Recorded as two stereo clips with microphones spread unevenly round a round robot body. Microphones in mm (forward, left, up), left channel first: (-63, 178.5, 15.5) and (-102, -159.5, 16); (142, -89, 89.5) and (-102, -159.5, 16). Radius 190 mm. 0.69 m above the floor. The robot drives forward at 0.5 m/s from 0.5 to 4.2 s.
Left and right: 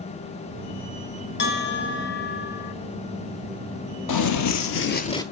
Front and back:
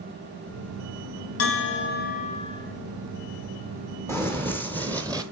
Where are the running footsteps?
105° left, 1.2 m; by 5.2 s 65° left, 0.6 m.